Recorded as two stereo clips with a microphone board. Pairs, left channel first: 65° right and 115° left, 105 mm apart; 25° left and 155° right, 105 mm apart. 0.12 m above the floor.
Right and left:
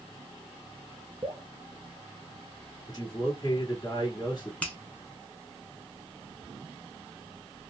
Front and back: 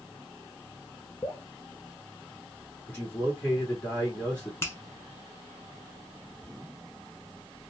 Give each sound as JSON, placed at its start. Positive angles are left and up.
{"t": 1.2, "sound": "dripping", "azimuth_deg": 70, "distance_m": 0.8}
{"t": 2.9, "sound": "a man speaking", "azimuth_deg": -45, "distance_m": 1.9}
{"t": 4.6, "sound": "a finger snap", "azimuth_deg": -5, "distance_m": 1.0}